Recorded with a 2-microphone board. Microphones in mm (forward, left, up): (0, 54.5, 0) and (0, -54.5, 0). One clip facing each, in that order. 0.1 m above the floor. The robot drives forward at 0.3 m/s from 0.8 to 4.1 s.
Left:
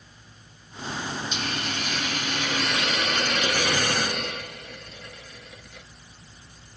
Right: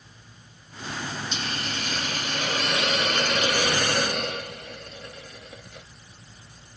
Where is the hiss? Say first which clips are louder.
Left 1 dB; 35° right (ahead or behind), 1.0 m; by 5.9 s 40° right (ahead or behind), 0.9 m.